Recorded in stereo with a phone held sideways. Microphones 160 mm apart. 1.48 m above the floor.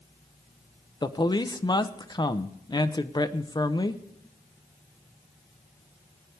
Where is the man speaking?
25° left (ahead or behind), 0.8 m.